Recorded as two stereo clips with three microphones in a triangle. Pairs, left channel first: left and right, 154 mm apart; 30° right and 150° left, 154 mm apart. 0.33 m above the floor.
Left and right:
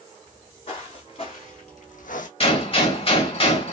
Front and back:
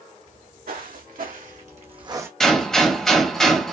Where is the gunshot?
55° left, 1.1 m.